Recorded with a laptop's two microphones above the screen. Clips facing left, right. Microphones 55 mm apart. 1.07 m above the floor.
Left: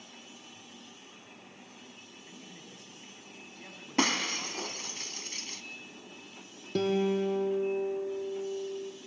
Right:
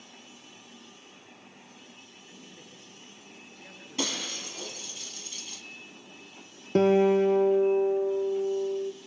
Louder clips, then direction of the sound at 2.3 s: Even; 75° left (ahead or behind).